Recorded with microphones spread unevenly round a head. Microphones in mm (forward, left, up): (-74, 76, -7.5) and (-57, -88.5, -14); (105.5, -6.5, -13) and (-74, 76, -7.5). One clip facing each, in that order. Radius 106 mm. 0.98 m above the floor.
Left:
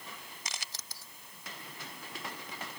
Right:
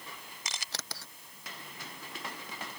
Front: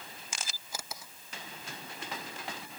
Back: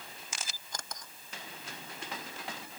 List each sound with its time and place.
0.5 s a camera shutter: 110° right